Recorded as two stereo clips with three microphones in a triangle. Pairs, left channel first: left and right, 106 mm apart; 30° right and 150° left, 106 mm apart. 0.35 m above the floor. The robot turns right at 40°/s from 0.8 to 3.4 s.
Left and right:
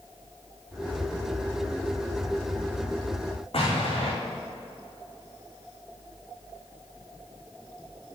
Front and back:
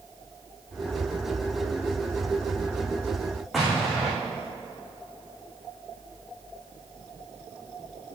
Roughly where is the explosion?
Ahead left.